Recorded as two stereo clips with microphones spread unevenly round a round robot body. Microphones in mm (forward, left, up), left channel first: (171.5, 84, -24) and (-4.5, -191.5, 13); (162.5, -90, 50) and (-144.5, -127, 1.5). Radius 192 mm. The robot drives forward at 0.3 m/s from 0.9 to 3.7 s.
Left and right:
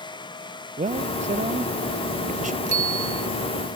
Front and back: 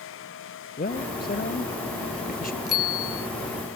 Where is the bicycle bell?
85° right.